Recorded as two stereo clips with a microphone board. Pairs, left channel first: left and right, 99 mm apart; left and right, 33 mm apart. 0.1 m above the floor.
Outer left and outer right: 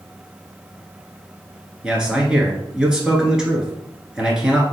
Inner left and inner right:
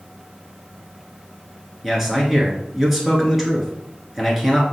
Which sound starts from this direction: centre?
A man speaking, at 1.8 s.